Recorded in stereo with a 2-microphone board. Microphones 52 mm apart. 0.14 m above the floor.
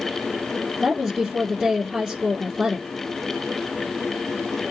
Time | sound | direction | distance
0.8 | a woman speaking | 15° right (ahead or behind) | 2.5 m